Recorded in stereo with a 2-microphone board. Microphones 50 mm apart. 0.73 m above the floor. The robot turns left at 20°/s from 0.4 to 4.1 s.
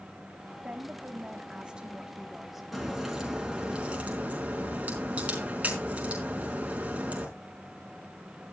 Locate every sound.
0.6 s a woman speaking: 135° right, 1.6 m; by 2.6 s 175° right, 1.6 m
2.7 s a crack: centre (ahead or behind), 4.5 m; by 7.3 s 30° right (ahead or behind), 4.5 m